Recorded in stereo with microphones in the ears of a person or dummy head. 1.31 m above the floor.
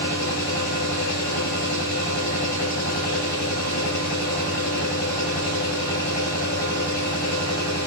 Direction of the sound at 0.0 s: 80° left.